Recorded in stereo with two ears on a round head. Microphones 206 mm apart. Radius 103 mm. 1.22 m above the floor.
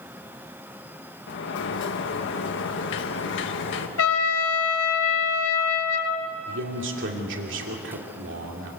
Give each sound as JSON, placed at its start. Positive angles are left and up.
{"t": 1.3, "sound": "a sliding door", "side_deg": 55, "distance_m": 1.8}
{"t": 4.0, "sound": "a trumpet", "side_deg": 65, "distance_m": 2.5}
{"t": 6.5, "sound": "a man speaking", "side_deg": -55, "distance_m": 2.5}